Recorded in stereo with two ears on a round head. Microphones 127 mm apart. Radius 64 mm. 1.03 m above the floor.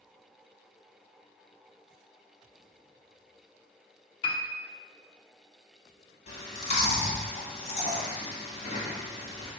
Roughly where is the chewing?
Left.